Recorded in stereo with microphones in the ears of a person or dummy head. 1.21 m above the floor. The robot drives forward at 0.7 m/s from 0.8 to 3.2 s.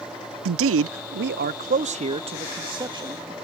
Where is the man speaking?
65° right (ahead or behind); by 3.3 s 15° right (ahead or behind).